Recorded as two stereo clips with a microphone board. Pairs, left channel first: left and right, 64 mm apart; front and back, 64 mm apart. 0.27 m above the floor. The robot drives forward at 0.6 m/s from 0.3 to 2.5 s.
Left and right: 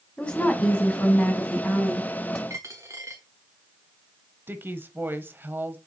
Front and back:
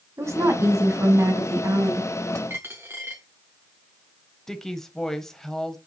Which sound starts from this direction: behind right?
A dropped coin, at 2.5 s.